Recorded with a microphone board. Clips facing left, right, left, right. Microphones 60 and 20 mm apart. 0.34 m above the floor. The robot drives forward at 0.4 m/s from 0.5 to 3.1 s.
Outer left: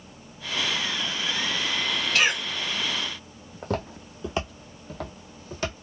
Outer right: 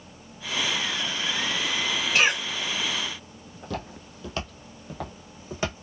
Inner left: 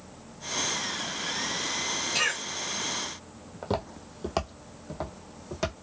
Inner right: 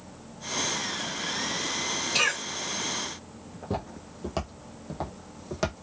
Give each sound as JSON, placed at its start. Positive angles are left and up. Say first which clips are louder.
{"t": 2.1, "sound": "a cough", "louder": "outer right 1 dB, inner right 3 dB", "side_deg": -20, "distance_m": 1.1}
{"t": 3.6, "sound": "footsteps", "louder": "outer left 5 dB, inner left 2 dB", "side_deg": 50, "distance_m": 0.8}